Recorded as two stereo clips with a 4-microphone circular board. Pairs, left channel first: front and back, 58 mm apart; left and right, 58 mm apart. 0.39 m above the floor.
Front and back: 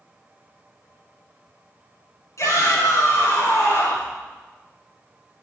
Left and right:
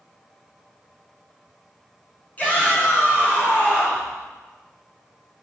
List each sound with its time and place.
2.4 s a shout: 25° left, 4.5 m; by 4.1 s 40° left, 4.5 m